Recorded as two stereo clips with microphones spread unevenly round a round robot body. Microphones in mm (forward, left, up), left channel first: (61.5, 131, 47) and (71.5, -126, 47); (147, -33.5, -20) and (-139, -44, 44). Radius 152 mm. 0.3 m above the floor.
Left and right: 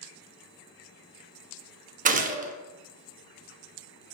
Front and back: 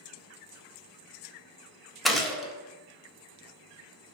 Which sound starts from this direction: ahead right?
A gunshot, at 2.0 s.